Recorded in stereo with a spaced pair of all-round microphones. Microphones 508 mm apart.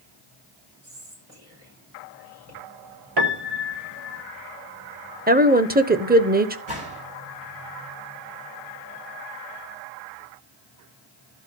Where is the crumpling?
I don't hear crumpling.